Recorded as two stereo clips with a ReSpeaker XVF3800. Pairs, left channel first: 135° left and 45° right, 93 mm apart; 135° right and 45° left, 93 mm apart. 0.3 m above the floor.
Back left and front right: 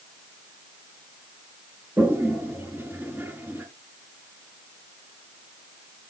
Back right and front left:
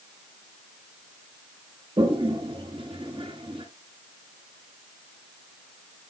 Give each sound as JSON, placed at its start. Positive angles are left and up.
{"t": 2.0, "sound": "a toilet flushing", "azimuth_deg": 25, "distance_m": 1.9}